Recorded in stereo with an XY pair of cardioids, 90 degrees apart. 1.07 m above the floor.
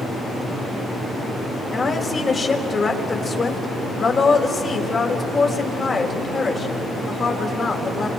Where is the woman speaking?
45° left, 5 m.